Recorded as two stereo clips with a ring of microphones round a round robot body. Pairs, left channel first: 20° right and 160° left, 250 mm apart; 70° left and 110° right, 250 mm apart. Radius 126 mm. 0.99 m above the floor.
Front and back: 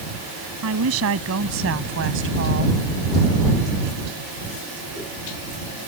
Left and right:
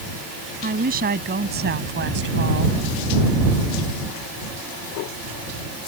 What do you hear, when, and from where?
0.6 s a woman speaking: 170° right; by 2.8 s 155° right